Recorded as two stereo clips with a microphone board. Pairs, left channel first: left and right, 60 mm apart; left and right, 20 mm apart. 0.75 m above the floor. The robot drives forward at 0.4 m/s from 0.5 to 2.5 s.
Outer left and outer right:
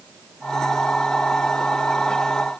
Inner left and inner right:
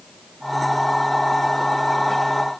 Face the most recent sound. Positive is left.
No sound to turn to.